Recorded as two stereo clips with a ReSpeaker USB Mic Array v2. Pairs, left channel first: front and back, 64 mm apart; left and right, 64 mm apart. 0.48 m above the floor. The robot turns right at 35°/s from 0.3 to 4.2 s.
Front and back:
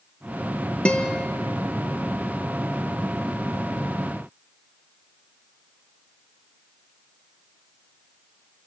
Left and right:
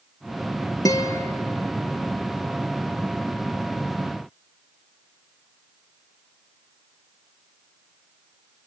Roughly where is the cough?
I don't hear a cough.